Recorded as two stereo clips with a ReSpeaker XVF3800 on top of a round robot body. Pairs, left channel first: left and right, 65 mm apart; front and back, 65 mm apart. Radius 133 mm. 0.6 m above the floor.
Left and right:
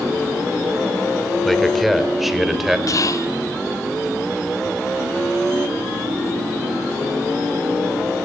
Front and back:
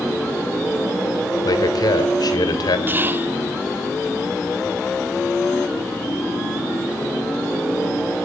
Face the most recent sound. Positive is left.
turn(degrees=120)